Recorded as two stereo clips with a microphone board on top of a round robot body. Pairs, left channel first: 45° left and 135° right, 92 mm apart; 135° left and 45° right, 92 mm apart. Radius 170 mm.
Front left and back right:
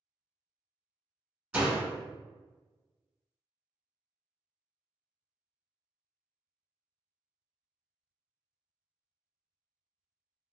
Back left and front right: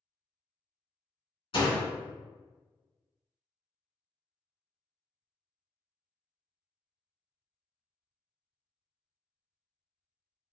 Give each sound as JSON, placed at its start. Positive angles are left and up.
{"t": 1.5, "sound": "a door slam", "azimuth_deg": 150, "distance_m": 1.9}